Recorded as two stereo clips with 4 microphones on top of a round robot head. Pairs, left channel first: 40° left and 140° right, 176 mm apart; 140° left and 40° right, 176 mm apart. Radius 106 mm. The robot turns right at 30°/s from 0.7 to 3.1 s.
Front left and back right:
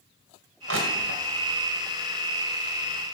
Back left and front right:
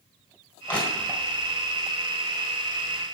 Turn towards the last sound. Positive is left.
turn(degrees=-65)